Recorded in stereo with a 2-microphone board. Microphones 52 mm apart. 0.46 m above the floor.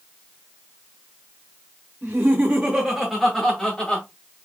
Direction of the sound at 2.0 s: 40° right (ahead or behind).